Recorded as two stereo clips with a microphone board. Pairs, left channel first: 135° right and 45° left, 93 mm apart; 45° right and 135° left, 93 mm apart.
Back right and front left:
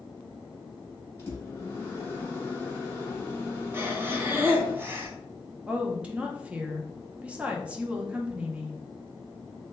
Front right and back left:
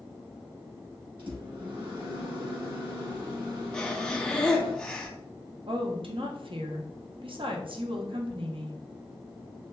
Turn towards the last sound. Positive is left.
turn(degrees=120)